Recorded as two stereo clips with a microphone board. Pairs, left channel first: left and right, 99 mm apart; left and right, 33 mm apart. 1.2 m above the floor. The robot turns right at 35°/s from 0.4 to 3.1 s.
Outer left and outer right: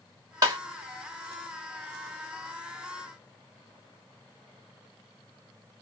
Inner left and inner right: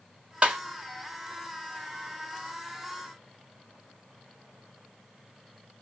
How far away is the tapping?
About 1.2 m.